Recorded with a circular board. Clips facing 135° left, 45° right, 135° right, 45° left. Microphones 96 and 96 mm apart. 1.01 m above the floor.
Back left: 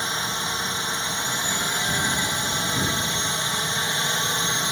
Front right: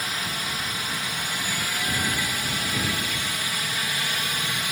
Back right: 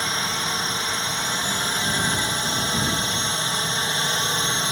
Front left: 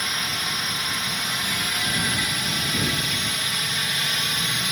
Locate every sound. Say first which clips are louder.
0.0 s a drone: back left 3 dB, back right 3 dB; 175° right